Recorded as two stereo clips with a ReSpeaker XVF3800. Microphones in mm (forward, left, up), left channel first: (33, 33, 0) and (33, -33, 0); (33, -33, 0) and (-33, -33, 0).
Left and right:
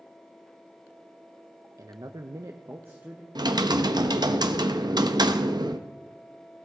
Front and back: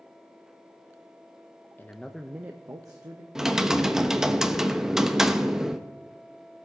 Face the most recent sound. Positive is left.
turn(degrees=-95)